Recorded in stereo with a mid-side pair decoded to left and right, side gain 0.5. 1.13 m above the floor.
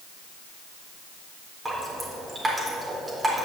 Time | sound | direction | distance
1.6 | dripping | 20° right | 4 m